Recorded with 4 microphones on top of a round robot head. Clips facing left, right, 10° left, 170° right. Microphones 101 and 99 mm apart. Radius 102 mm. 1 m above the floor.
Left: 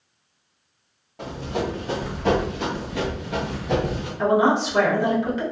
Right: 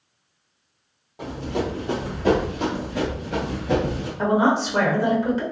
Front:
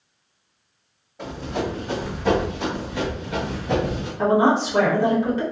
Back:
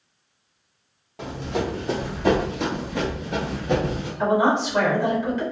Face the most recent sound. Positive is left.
turn(degrees=-45)